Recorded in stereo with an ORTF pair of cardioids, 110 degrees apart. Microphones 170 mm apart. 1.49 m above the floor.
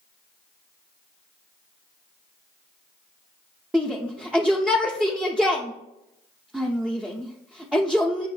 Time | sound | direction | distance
3.7 | a shout | 5° right | 0.6 m